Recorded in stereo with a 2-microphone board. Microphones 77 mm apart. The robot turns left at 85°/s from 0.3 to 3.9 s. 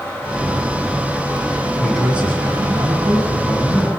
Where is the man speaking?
20° left, 9.5 m; by 3.9 s 160° right, 9.5 m.